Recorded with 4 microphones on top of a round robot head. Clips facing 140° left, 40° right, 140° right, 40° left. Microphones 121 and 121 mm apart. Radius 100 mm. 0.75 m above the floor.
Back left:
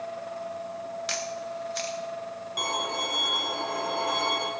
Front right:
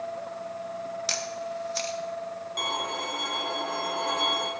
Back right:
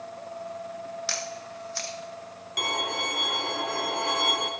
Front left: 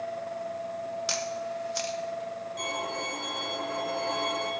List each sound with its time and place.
1.1 s a camera shutter: 20° right, 1.1 m
2.6 s a violin: 135° right, 1.0 m